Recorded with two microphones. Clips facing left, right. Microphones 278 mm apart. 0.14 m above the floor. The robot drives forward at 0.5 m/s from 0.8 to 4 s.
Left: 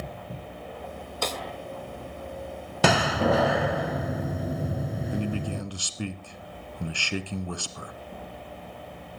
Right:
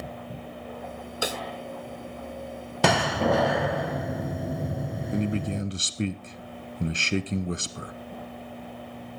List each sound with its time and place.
1.2 s a snare drum: 10° right (ahead or behind), 0.7 m
2.8 s a door slam: centre (ahead or behind), 0.8 m
5.1 s a man speaking: 20° right (ahead or behind), 1.2 m